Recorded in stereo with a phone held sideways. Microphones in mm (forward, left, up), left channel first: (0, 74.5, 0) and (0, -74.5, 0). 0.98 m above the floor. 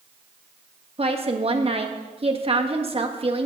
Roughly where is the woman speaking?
Right.